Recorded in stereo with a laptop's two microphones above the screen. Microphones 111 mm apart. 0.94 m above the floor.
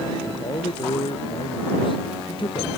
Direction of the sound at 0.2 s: 50° left (ahead or behind).